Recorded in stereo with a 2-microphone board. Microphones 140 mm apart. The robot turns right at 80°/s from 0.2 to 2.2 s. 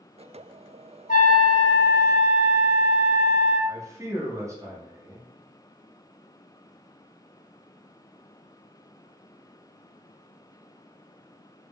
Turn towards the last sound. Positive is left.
turn(degrees=-20)  # may be behind; listen again after turning